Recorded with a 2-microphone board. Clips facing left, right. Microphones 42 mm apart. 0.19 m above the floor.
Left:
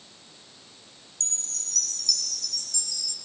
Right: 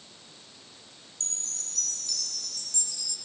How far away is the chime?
About 1.6 m.